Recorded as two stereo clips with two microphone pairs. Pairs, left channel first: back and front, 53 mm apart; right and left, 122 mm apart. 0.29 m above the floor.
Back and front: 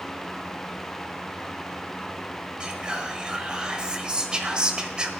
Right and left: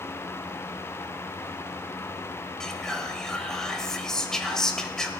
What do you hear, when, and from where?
2.6 s whispering: 15° right, 1.2 m